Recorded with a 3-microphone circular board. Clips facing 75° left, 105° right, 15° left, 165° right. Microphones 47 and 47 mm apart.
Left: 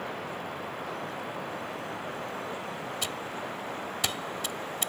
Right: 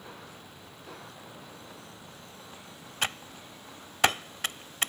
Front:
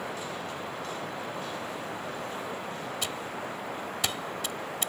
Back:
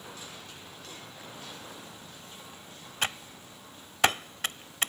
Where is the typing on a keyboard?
135° right.